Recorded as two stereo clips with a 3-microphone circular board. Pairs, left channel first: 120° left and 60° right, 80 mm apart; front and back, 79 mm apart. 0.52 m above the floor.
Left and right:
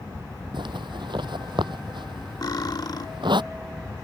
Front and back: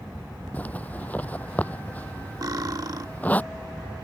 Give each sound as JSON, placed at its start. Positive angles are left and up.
{"t": 0.5, "sound": "a zipper", "azimuth_deg": -70}
{"t": 2.4, "sound": "cutlery clinking", "azimuth_deg": 150}